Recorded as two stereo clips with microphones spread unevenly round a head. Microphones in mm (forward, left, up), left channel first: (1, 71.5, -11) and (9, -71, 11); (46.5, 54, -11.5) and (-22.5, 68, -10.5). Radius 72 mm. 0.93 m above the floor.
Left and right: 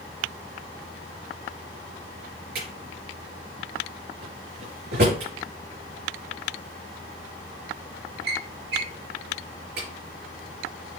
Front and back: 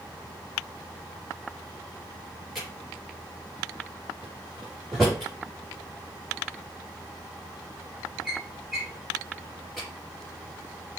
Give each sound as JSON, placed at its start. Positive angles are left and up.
{"t": 2.5, "sound": "a drawer", "azimuth_deg": -100, "distance_m": 5.0}